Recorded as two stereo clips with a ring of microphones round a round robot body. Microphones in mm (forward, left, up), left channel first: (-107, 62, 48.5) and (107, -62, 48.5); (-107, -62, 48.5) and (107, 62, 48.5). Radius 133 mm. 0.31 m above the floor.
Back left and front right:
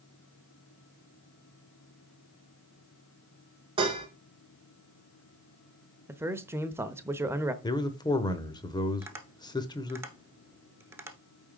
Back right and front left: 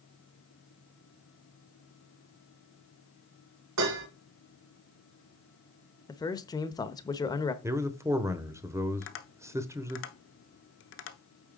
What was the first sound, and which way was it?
Dishes clattering, 40° left.